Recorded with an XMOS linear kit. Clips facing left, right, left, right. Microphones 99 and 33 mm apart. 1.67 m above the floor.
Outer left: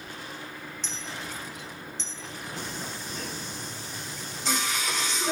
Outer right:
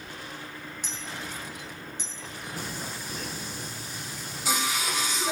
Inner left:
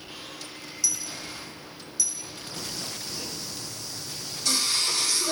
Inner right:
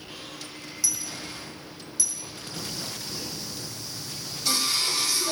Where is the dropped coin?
10° right (ahead or behind), 1.2 m.